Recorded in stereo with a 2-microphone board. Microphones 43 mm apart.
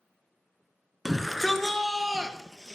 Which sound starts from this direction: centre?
A shout, at 1.1 s.